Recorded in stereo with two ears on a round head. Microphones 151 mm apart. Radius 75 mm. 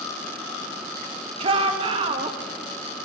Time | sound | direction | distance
1.4 | a shout | 30° right (ahead or behind) | 1.5 m